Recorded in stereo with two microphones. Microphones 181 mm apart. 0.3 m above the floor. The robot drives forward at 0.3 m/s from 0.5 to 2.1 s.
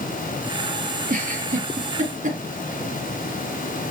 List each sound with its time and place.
1.1 s a giggle: 55° right (ahead or behind), 1.6 m; by 2.4 s 50° right (ahead or behind), 1.8 m